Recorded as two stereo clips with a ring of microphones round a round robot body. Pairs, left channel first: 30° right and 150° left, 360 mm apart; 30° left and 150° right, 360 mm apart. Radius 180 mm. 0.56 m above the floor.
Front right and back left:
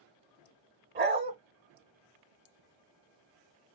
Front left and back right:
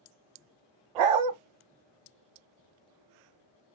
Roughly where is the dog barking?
Behind right.